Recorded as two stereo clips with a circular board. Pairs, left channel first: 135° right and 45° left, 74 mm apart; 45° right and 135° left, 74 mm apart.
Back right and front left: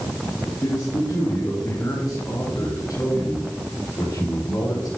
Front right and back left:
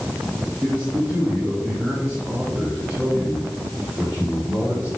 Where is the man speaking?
165° right, 3.5 m; by 4.9 s 155° right, 5.5 m.